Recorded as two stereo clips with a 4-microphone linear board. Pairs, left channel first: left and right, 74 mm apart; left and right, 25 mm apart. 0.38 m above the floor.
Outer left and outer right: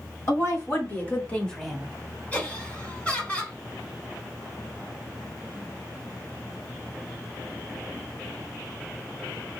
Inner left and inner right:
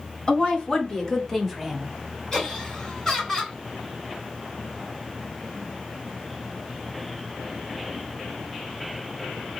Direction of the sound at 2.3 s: 25° left (ahead or behind).